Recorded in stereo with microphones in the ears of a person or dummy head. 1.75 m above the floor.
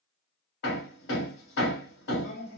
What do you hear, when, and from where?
0.6 s hammering: 70° left (ahead or behind), 1.8 m